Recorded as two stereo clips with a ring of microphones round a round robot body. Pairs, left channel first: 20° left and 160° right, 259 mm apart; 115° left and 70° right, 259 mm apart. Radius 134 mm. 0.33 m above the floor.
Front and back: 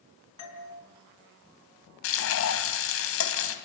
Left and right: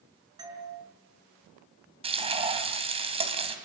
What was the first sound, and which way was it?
A doorbell, 5° left.